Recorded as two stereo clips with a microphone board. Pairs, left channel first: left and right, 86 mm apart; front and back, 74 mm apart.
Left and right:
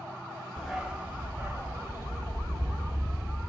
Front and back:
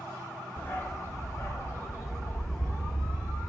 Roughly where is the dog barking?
Ahead.